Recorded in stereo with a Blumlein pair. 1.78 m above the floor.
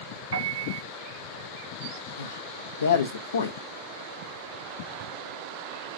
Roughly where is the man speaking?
Ahead left.